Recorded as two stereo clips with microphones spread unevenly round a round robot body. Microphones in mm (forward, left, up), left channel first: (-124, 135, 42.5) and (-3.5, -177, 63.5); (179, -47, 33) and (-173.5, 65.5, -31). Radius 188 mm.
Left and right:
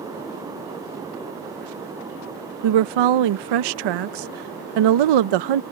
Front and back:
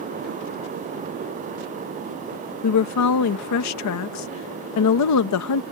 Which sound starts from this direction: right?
A woman speaking, at 2.6 s.